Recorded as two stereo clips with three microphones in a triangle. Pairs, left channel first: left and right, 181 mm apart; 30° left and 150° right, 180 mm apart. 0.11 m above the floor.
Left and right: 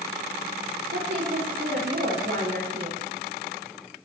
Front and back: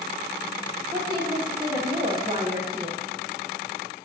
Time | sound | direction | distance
0.9 | a woman speaking | 90° right | 6.5 m